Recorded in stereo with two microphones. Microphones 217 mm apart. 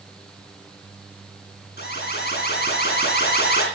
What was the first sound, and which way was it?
An alarm, 50° left (ahead or behind).